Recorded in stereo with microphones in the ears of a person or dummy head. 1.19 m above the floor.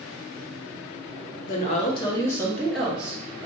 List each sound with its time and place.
1.5 s a woman speaking: 45° left (ahead or behind), 0.8 m; by 3.5 s 15° right (ahead or behind), 1.1 m